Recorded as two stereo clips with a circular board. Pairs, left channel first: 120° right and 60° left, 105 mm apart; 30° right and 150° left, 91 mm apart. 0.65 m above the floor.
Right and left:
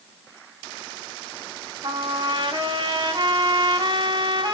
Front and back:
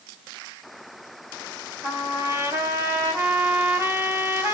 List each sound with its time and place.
1.8 s a trumpet: 90° left, 2.5 m